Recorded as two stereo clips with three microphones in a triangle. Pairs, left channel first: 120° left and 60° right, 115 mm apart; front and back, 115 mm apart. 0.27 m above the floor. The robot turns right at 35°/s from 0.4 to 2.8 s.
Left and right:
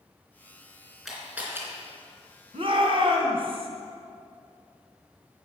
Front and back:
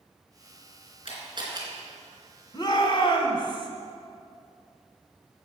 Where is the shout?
45° right, 2 m; by 3.7 s 35° right, 2 m.